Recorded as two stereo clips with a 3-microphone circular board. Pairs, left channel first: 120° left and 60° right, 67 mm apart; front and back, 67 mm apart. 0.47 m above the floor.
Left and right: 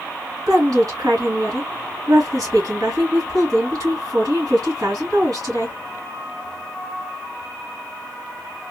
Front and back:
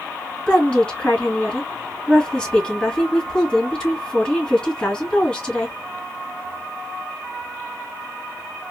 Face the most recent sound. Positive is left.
turn(degrees=-70)